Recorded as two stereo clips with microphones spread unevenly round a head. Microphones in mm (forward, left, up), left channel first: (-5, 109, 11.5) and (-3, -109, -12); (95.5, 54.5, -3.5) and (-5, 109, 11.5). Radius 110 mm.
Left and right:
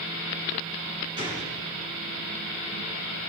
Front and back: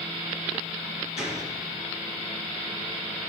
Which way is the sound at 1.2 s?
20° right.